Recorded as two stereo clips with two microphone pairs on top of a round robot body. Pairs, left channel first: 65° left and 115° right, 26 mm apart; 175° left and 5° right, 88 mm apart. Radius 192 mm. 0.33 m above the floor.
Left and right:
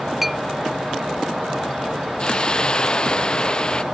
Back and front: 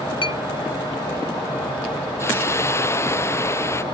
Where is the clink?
160° left.